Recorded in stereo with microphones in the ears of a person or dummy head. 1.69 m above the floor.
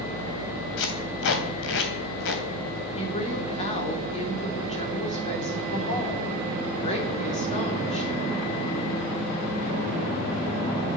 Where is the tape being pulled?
60° left (ahead or behind), 3 m.